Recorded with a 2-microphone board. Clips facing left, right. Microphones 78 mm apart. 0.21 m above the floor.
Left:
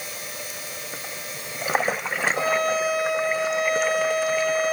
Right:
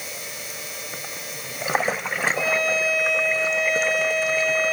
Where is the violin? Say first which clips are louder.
Left 2 dB; 65° left (ahead or behind), 3 m.